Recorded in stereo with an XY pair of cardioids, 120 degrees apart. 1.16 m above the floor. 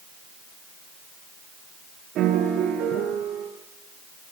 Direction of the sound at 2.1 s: 65° right.